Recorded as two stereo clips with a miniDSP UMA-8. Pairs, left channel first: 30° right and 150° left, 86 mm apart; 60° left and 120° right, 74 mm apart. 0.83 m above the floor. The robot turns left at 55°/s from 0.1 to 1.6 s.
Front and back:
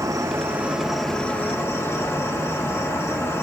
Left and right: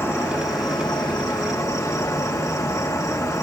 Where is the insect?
110° left, 1.5 m; by 3.4 s 25° left, 1.5 m.